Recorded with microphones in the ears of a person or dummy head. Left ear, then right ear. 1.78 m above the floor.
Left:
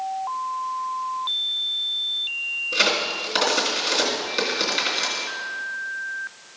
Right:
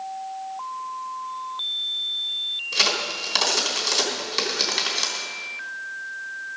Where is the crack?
30° right (ahead or behind), 3 m.